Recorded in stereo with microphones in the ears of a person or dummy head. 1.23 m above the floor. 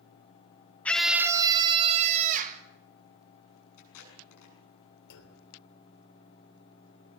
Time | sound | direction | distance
0.8 | a scream | 5° left (ahead or behind) | 0.7 m
3.8 | tape being pulled | 70° left (ahead or behind) | 7.5 m
5.1 | a clunk | 85° left | 3 m